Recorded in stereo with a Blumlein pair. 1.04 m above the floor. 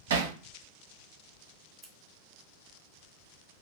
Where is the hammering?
60° right, 0.7 m.